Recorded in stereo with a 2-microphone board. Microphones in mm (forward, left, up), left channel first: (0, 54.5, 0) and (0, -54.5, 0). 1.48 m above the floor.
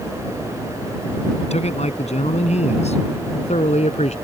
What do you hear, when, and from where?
1.4 s a man speaking: 85° left; by 4.1 s 90° left